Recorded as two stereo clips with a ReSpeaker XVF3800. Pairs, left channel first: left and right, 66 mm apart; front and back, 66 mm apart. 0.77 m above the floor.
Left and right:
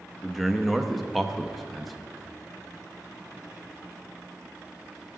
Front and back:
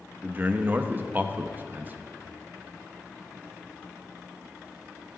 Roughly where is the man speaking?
Behind.